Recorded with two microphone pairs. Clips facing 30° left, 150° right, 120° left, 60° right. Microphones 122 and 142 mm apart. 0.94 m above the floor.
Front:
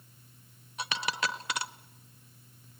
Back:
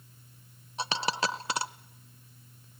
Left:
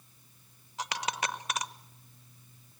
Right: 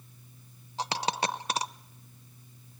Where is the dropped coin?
105° right, 0.8 m.